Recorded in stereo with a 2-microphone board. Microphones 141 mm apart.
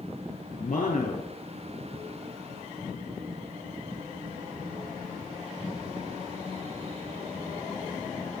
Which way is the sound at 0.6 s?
65° left (ahead or behind).